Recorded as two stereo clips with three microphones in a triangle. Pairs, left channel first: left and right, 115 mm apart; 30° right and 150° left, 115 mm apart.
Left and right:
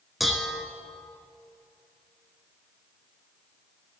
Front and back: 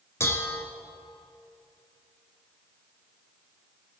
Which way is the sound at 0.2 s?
Straight ahead.